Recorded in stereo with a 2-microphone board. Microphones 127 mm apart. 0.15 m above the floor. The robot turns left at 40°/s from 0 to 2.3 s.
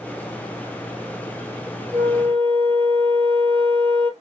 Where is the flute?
55° right (ahead or behind), 0.8 m; by 4.1 s 40° right (ahead or behind), 0.8 m.